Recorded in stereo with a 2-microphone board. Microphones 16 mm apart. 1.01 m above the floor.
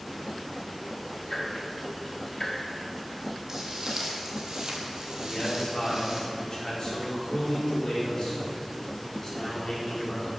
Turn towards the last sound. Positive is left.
turn(degrees=45)  # may be behind; listen again after turning